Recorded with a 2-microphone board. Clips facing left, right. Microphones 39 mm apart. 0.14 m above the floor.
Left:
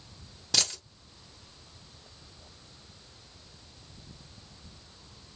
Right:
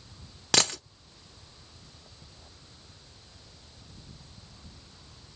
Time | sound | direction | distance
0.5 | a dropped coin | 80° right | 0.7 m